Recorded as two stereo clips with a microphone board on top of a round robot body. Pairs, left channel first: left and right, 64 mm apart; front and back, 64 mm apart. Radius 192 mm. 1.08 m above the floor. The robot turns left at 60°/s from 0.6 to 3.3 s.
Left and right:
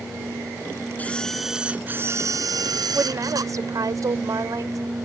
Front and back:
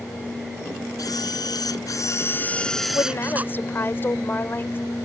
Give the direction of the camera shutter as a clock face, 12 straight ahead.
11 o'clock.